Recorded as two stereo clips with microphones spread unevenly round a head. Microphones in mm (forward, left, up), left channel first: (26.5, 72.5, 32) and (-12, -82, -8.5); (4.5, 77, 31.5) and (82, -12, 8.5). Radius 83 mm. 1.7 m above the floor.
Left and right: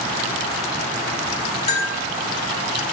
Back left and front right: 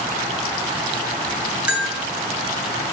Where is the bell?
35° left, 2 m.